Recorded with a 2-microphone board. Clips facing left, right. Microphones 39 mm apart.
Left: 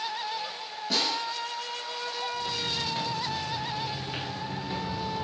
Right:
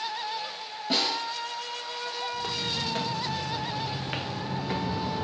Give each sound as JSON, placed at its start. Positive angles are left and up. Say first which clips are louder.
{"t": 0.9, "sound": "a snare drum", "louder": "right 1 dB", "side_deg": -25, "distance_m": 4.0}
{"t": 2.3, "sound": "footsteps", "louder": "even", "side_deg": -85, "distance_m": 3.0}